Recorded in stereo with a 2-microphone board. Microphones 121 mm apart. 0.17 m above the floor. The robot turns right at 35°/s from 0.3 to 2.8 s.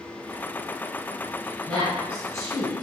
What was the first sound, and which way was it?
A woman speaking, 25° left (ahead or behind).